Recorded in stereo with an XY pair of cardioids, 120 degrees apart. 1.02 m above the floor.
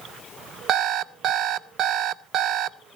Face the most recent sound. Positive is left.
turn(degrees=-60)